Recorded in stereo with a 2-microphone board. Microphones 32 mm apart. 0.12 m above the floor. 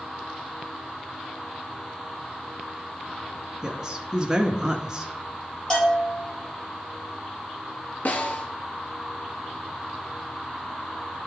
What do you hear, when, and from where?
3.6 s a woman speaking: 20° right (ahead or behind), 1.2 m
5.7 s a bell: 20° left (ahead or behind), 3 m
8.1 s a snare drum: 55° left (ahead or behind), 1.4 m